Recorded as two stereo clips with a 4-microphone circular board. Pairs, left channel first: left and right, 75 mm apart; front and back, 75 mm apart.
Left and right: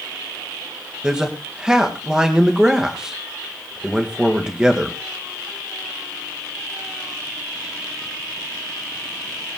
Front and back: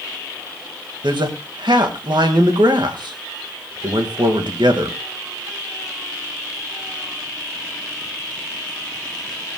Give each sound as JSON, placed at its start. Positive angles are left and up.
{"t": 1.0, "sound": "a man speaking", "azimuth_deg": -170, "distance_m": 2.0}